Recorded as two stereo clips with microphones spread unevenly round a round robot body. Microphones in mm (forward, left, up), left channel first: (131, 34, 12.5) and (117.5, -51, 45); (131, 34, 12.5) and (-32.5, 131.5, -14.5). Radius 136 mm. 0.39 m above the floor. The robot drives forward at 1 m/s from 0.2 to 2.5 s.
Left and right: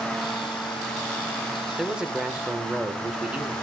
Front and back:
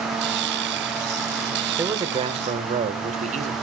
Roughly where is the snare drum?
I don't hear a snare drum.